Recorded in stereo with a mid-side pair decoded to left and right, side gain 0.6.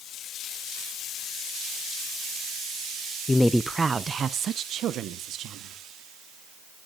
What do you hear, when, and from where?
3.3 s a woman speaking: 20° left, 0.5 m; by 5.8 s 60° right, 1.8 m